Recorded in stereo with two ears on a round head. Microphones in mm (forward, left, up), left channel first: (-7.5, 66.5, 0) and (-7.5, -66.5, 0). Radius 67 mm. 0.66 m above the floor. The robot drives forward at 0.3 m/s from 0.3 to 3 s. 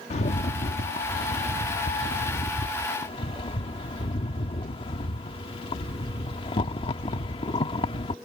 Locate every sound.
0.1 s a rattle: 45° left (ahead or behind); by 8.2 s 35° left (ahead or behind)